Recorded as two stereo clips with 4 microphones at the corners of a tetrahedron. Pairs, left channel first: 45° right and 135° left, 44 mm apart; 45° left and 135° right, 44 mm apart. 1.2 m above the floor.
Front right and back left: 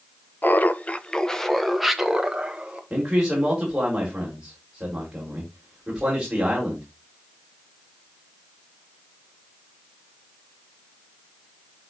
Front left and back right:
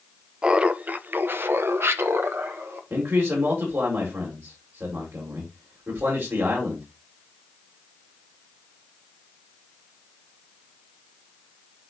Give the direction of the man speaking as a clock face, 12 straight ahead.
5 o'clock.